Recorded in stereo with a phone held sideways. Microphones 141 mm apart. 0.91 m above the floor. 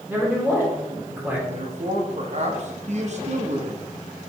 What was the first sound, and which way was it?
A man speaking, 15° right (ahead or behind).